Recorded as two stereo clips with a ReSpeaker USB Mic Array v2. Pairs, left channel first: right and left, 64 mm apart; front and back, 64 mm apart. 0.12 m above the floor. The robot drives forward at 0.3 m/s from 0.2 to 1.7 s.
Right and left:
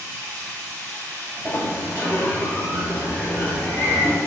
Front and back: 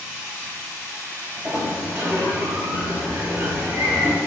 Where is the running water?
105° left, 1.7 m; by 4.3 s 125° left, 1.9 m.